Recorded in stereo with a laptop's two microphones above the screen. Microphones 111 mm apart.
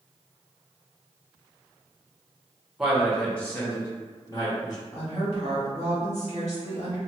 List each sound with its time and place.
2.8 s a man speaking: 5° right (ahead or behind), 0.9 m; by 4.8 s 35° left (ahead or behind), 1.1 m
4.9 s a woman speaking: 70° left (ahead or behind), 1.6 m